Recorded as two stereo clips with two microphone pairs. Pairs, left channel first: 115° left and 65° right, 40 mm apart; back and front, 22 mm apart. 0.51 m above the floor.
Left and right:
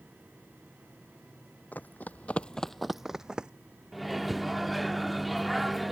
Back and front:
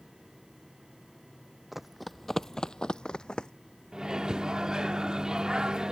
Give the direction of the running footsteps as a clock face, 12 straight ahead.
9 o'clock.